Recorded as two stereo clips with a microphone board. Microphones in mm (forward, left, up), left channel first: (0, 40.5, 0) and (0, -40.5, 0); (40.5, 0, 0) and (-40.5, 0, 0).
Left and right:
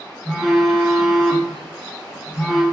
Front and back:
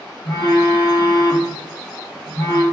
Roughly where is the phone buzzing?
Ahead.